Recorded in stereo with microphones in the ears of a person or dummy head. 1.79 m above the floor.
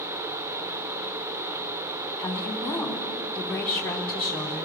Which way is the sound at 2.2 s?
10° left (ahead or behind).